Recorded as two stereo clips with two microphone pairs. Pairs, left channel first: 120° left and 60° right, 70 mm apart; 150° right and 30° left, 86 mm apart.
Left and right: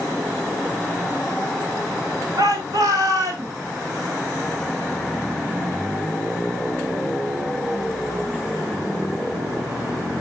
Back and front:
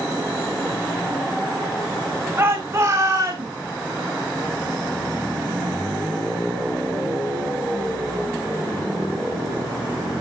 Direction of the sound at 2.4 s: 35° right.